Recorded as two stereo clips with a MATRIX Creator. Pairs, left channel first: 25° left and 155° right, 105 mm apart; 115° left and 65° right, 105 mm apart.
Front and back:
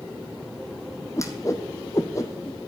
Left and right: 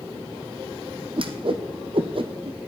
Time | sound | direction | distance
1.2 | a whoosh | 35° right | 1.1 m